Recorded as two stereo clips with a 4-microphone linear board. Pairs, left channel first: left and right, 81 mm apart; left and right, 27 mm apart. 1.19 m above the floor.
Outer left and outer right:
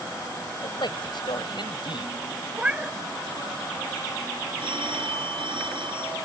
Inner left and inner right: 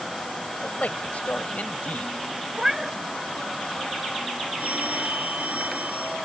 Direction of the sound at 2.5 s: 20° right (ahead or behind).